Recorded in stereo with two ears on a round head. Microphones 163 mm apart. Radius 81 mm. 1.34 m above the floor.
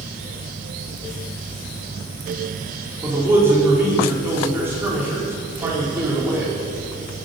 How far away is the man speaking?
About 4.5 m.